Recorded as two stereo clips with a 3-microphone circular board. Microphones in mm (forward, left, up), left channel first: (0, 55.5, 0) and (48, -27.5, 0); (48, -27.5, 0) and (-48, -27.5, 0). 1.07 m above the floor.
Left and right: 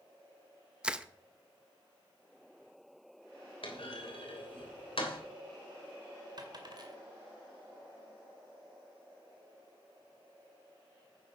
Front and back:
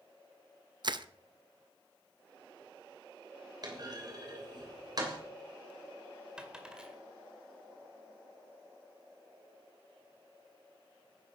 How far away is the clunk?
About 3 m.